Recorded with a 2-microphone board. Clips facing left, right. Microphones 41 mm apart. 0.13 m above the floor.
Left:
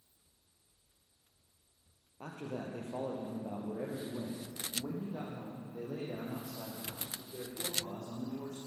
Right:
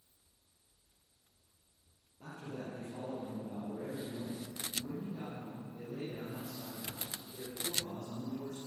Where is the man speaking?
60° left (ahead or behind), 3.5 m; by 8.6 s 65° left (ahead or behind), 7.5 m.